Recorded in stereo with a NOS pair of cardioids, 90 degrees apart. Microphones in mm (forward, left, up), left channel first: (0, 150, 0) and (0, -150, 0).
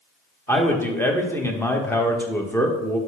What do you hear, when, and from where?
0.5 s a man speaking: 10° left, 1.3 m